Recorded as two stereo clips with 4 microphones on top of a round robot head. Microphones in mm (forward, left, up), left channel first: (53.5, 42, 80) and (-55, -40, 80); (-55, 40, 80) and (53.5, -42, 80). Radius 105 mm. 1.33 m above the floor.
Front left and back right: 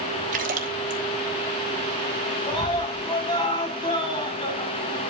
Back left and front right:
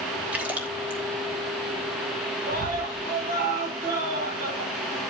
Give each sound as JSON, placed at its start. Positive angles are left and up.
{"t": 0.3, "sound": "a splash", "azimuth_deg": -115, "distance_m": 1.0}
{"t": 2.5, "sound": "a scream", "azimuth_deg": -20, "distance_m": 8.0}